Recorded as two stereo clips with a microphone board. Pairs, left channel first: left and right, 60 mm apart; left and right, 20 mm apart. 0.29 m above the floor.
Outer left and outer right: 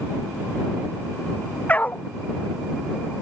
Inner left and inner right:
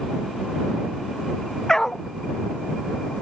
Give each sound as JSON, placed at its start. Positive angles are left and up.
{"t": 1.7, "sound": "a dog barking", "side_deg": 25}